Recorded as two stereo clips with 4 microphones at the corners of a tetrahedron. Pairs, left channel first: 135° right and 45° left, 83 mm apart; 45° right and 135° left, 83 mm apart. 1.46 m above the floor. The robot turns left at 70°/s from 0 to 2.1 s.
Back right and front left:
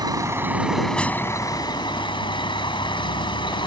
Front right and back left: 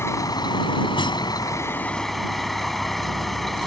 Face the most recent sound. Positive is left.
turn(degrees=-135)